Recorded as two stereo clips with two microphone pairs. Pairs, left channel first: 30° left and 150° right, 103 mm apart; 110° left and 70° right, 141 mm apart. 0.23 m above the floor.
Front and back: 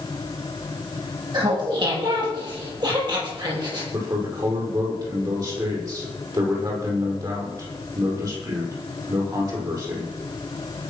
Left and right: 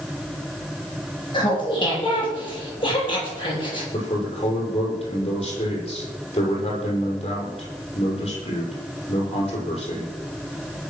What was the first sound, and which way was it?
Laughter, 165° left.